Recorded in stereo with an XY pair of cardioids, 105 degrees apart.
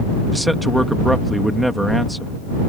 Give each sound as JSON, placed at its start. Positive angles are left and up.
{"t": 0.3, "sound": "a man speaking", "azimuth_deg": -5}